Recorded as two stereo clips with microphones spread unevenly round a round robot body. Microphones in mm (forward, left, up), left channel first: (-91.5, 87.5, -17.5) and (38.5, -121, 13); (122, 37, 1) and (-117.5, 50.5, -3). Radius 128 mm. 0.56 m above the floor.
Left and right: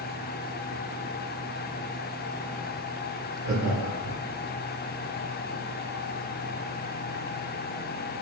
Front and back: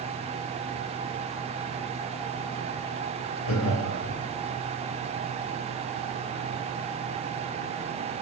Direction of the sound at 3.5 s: Straight ahead.